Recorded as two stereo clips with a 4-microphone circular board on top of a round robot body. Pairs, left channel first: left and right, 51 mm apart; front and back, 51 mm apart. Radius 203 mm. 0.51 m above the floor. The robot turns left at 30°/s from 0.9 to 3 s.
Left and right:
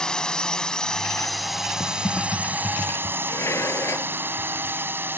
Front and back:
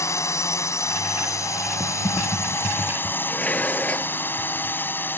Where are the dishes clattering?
65° left.